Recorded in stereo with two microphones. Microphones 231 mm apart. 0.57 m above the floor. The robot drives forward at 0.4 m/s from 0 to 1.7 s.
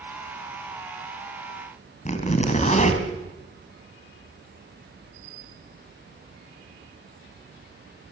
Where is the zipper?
30° left (ahead or behind), 3 m.